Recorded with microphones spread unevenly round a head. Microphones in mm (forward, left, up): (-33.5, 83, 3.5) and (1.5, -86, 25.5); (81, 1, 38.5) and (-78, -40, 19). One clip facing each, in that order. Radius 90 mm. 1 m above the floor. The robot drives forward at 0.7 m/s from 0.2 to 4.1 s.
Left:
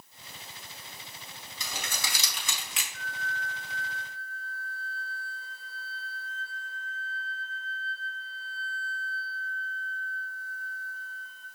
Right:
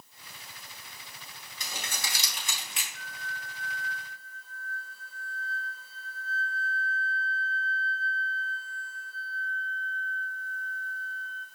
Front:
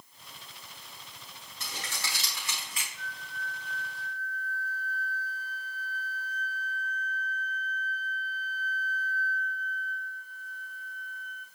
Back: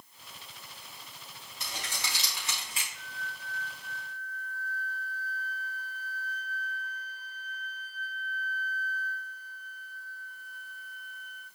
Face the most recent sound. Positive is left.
turn(degrees=165)